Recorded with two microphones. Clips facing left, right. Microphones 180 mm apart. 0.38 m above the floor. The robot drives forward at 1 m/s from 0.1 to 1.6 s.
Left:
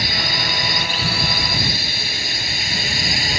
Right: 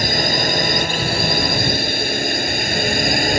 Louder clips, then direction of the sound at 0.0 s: Right 7 dB; 45° right (ahead or behind).